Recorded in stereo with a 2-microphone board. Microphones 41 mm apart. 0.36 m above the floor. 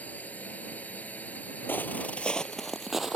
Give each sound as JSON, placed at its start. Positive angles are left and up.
{"t": 0.0, "sound": "a drone", "side_deg": 40}
{"t": 1.7, "sound": "footsteps", "side_deg": 55}